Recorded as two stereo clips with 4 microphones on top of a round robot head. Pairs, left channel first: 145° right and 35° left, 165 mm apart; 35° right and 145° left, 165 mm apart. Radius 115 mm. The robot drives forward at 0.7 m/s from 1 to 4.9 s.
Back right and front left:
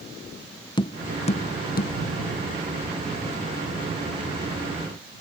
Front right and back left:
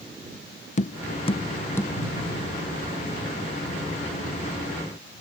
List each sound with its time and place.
0.8 s tapping: 80° right; by 1.9 s 115° right